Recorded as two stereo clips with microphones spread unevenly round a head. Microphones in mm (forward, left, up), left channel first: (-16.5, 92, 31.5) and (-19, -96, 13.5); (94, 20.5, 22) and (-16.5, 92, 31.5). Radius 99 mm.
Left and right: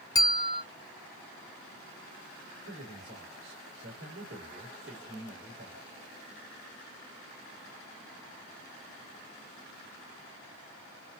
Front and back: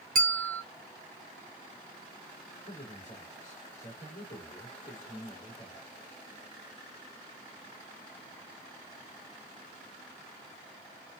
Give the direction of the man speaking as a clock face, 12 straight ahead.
2 o'clock.